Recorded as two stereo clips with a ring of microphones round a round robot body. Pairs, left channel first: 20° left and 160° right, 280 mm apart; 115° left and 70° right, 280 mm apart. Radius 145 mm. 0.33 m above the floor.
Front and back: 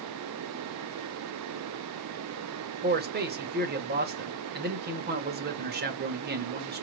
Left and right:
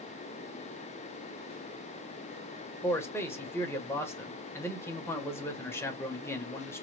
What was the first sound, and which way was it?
A man speaking, 170° right.